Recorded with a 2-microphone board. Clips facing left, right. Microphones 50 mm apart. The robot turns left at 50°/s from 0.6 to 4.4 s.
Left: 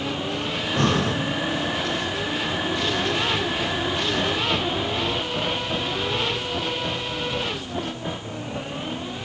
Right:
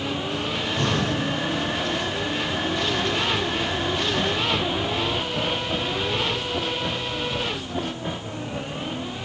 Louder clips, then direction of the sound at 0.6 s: Left 3 dB; 40° left (ahead or behind).